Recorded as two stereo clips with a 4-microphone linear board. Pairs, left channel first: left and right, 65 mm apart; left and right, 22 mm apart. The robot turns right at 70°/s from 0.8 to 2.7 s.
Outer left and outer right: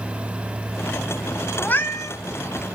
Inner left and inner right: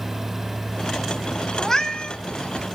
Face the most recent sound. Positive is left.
turn(degrees=100)